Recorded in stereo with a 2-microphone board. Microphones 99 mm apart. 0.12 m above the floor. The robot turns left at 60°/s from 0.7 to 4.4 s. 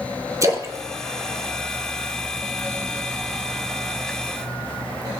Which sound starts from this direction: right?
A splash, at 0.4 s.